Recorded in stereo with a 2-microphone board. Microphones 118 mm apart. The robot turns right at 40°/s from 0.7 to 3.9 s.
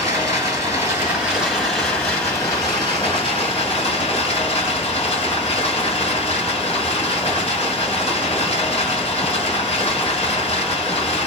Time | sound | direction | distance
0.0 | running water | 35° right | 2 m